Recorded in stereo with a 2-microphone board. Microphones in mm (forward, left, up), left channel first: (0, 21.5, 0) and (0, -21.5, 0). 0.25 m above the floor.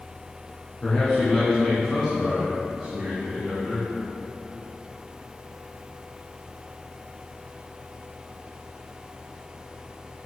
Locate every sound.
0.8 s a man speaking: 20° left (ahead or behind), 3 m; by 3.9 s 35° right (ahead or behind), 3.5 m